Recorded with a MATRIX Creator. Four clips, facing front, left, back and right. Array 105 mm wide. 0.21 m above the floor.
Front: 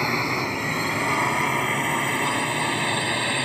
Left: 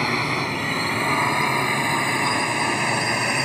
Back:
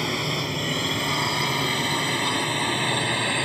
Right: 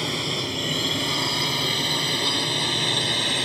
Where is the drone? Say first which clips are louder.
Left 5 dB, front 3 dB; 60° left; by 3.5 s 90° left.